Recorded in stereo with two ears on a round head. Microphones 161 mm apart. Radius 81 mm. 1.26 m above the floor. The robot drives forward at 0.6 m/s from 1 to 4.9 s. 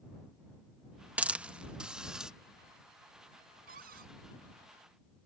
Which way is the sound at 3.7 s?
50° right (ahead or behind).